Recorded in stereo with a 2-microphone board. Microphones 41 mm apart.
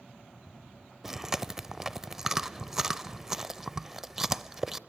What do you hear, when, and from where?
1.0 s chewing: 15° right (ahead or behind), 0.5 m